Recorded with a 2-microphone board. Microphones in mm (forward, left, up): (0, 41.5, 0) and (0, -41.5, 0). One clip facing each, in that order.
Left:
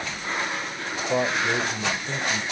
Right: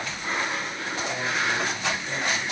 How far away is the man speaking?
About 2.5 m.